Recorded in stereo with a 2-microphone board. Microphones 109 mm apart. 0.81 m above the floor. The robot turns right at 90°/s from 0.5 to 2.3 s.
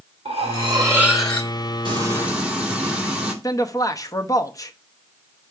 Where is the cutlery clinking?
60° right, 1.5 m; by 1.5 s 30° left, 1.5 m.